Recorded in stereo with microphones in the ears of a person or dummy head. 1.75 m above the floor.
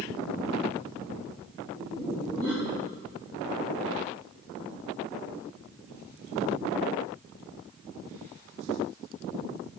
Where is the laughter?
10° left (ahead or behind), 1.6 m.